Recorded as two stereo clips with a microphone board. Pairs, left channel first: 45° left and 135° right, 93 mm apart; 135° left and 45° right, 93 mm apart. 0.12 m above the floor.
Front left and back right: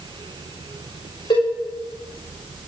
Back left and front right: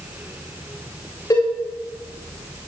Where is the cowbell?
80° left, 7 m.